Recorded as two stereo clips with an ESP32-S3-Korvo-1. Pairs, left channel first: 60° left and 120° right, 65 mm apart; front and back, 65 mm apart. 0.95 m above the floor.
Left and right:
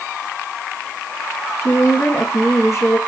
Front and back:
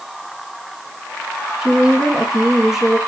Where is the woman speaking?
95° left, 1.3 m.